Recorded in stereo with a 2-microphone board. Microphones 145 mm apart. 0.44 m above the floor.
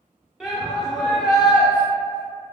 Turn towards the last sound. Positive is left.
turn(degrees=-5)  # may be behind; listen again after turning